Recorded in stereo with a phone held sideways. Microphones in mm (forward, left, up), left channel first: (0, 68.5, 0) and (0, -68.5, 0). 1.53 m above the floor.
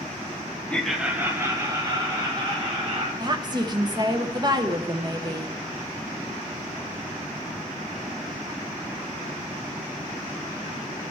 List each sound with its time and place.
0.7 s laughter: 10° left (ahead or behind), 1.0 m; by 3.1 s 40° right (ahead or behind), 3 m
3.2 s a woman speaking: 30° right (ahead or behind), 0.8 m